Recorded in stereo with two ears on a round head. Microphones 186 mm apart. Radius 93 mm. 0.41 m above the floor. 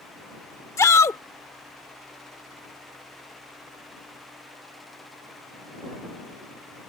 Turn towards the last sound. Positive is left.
turn(degrees=15)  # may be behind; listen again after turning